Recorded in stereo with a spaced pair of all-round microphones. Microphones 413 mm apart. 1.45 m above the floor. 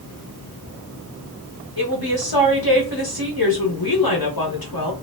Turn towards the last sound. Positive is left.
turn(degrees=55)  # may be behind; listen again after turning